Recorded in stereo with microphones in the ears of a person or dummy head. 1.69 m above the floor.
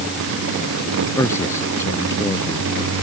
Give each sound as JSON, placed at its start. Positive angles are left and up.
{"t": 1.2, "sound": "a man speaking", "side_deg": 15}